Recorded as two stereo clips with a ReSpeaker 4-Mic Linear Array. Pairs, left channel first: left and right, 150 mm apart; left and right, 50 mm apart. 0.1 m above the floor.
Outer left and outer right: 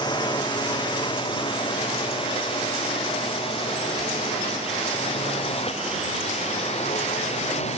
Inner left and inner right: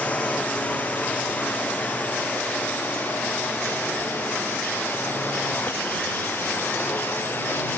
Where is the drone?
25° left (ahead or behind); by 7.8 s 40° left (ahead or behind).